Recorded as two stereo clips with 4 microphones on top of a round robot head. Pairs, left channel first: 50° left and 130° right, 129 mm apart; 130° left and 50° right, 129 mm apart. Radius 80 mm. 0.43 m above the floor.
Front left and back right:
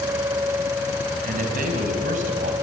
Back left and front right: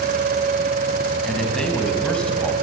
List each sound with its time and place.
1.2 s a man speaking: 145° right, 4 m; by 2.5 s 150° right, 3 m